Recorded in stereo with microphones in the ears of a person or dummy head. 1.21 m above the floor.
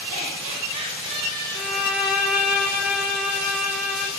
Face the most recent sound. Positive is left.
turn(degrees=0)  # may be behind; listen again after turning